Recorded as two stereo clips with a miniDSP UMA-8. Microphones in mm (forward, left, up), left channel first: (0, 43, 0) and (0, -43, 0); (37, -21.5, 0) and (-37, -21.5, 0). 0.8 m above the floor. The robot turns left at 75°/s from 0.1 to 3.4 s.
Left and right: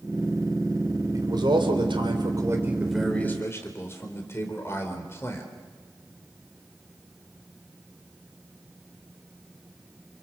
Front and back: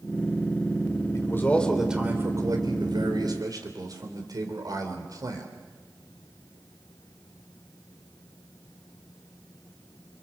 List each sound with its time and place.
1.1 s a man speaking: 40° right, 3.5 m; by 5.5 s 150° left, 3.5 m